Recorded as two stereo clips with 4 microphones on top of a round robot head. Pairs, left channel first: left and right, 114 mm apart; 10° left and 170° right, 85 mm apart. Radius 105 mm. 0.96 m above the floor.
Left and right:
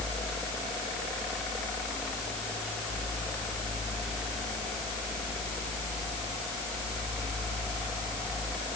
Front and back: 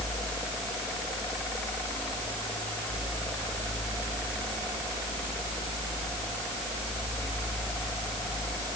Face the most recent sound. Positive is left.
No sound to turn to.